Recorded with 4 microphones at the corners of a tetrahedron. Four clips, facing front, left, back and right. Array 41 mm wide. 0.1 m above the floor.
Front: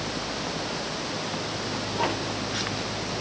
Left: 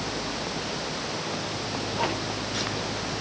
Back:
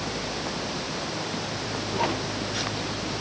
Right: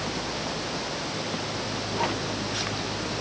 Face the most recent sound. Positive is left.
No sound to turn to.